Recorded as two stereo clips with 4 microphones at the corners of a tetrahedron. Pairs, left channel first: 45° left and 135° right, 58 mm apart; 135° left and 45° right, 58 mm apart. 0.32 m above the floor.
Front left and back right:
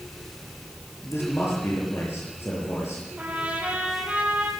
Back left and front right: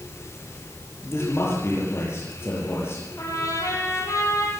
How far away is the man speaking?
About 6.5 m.